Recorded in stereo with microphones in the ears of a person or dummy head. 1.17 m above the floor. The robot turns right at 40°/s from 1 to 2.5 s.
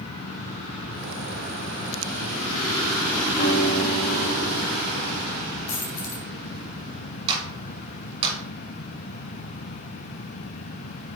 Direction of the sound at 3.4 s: 45° left (ahead or behind).